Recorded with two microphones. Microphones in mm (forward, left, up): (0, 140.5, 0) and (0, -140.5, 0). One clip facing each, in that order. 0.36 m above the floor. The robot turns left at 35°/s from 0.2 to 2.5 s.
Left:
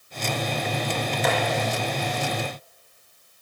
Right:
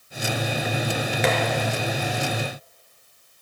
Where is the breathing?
No breathing in this recording.